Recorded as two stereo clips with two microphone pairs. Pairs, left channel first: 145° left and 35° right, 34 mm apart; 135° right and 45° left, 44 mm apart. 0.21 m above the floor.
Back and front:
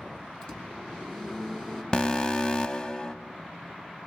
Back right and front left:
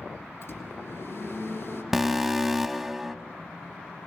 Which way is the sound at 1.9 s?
120° left.